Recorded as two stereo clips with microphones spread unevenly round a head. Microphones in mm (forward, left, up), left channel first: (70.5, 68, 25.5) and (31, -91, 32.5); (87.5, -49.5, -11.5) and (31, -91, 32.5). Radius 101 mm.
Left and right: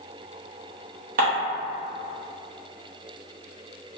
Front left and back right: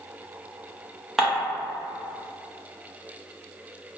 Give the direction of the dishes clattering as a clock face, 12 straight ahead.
3 o'clock.